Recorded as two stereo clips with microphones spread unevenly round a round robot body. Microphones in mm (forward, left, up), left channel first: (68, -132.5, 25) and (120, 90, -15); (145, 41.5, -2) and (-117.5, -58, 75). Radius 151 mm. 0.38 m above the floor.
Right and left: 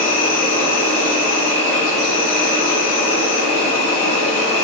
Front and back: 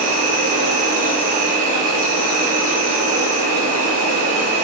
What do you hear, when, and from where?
0.0 s an insect: 95° right, 1.4 m